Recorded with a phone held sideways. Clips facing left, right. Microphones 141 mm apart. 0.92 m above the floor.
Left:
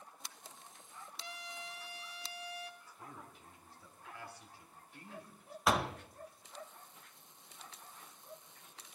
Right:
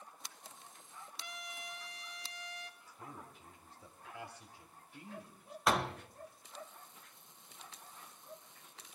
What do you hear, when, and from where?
1.2 s a trumpet: 30° left (ahead or behind), 1.2 m
2.8 s a man speaking: 20° right (ahead or behind), 2 m
5.7 s a door slam: centre (ahead or behind), 0.6 m